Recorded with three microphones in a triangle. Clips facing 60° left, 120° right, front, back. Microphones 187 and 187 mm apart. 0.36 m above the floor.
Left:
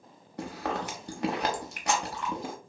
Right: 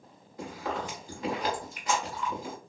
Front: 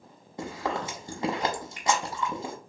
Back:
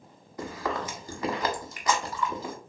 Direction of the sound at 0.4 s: 65° left.